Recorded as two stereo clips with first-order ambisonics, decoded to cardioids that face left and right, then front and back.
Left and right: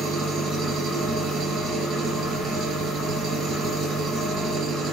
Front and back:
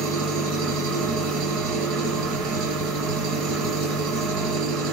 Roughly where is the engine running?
Behind right.